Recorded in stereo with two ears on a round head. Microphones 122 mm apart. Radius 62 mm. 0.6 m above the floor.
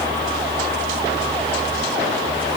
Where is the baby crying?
No baby crying in this recording.